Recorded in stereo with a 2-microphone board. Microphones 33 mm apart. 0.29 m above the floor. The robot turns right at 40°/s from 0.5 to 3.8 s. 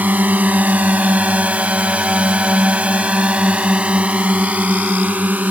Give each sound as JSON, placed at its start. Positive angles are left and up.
{"t": 0.0, "sound": "a drone", "side_deg": -60}